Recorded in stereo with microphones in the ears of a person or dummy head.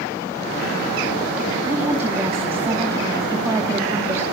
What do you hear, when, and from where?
1.6 s a woman speaking: 5° right (ahead or behind), 2.5 m